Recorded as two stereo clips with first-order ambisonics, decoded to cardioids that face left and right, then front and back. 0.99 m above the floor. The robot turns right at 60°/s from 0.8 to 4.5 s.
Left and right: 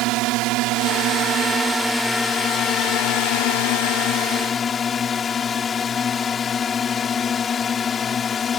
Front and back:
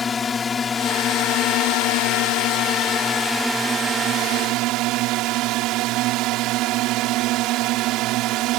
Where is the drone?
70° right; by 8.6 s 155° left.